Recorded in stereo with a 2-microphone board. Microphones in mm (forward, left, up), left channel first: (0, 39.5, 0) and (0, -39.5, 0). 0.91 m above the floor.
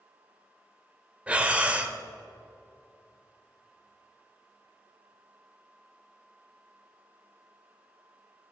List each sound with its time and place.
1.3 s breathing: 15° right (ahead or behind), 1.0 m